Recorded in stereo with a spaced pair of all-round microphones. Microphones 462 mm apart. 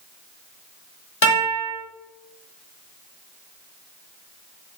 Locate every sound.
1.2 s a guitar: 75° left (ahead or behind), 1.3 m